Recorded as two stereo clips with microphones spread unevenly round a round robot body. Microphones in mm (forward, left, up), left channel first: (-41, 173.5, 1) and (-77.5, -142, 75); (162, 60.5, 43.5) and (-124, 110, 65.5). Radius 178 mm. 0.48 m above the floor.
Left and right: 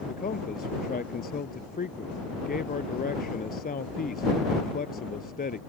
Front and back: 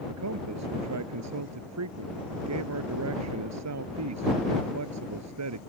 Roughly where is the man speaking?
Behind left.